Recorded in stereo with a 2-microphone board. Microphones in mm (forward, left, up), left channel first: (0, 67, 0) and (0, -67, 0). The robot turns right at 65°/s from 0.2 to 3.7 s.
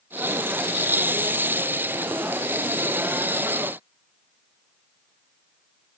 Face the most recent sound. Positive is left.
No sound to turn to.